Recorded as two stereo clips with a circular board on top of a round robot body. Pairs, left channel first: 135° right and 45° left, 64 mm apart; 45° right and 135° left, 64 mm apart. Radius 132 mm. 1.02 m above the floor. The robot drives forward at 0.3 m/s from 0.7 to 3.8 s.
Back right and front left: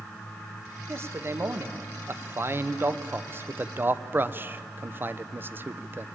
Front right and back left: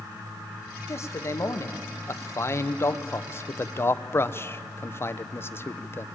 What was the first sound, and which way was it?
A man speaking, straight ahead.